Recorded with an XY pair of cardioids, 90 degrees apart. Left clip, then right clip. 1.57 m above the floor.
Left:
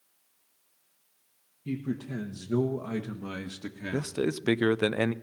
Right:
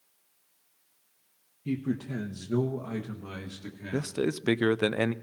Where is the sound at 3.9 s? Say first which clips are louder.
Right 1 dB; 5° left, 0.5 m.